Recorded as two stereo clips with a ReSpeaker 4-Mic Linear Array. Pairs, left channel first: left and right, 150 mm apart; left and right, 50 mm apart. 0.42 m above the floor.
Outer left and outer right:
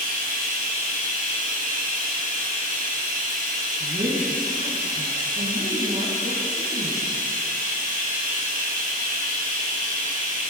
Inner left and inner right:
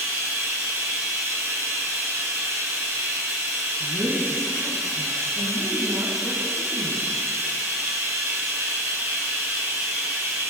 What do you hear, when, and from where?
0.0 s running water: 75° right (ahead or behind), 4 m
3.8 s a woman speaking: 65° right (ahead or behind), 4.5 m